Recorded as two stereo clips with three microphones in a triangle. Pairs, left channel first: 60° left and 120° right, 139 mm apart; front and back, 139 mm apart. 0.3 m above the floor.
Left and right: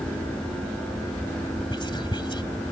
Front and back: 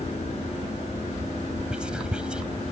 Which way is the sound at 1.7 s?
100° left.